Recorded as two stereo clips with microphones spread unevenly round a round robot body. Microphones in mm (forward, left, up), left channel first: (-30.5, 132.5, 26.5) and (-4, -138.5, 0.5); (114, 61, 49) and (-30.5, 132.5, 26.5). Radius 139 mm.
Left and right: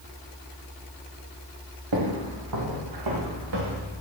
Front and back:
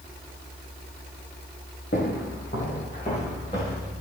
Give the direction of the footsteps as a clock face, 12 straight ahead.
3 o'clock.